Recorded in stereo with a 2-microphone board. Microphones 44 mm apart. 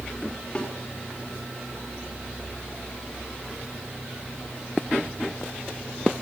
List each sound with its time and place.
0.6 s a snare drum: 20° left (ahead or behind), 3.5 m